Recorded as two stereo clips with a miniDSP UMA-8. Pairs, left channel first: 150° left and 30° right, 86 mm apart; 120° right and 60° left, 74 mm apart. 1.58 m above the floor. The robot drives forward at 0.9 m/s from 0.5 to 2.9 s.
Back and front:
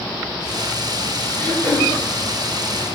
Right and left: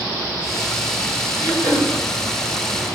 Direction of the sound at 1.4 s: 80° left.